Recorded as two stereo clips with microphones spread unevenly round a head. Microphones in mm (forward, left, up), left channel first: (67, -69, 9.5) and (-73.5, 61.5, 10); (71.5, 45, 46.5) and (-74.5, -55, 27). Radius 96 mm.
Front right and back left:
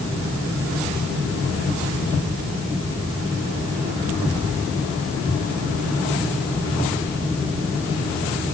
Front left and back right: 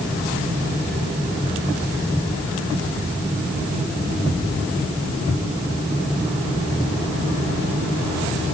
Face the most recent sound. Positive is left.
No sound to turn to.